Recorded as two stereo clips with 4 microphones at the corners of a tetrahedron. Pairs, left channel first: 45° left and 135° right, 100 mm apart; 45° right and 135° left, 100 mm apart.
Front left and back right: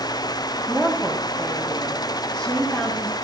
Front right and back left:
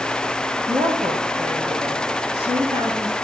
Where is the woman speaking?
125° left, 4 m.